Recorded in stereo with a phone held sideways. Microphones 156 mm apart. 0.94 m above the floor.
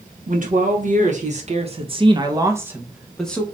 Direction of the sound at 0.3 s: 60° right (ahead or behind).